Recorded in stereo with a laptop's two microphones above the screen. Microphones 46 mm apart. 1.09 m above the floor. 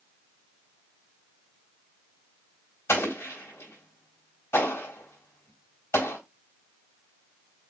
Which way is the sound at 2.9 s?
85° left.